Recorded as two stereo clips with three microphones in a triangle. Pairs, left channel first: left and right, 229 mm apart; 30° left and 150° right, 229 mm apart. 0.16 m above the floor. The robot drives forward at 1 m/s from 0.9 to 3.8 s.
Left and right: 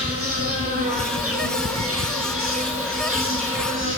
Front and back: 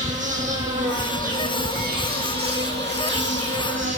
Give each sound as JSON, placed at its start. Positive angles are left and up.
{"t": 0.0, "sound": "an insect", "azimuth_deg": -95, "distance_m": 7.0}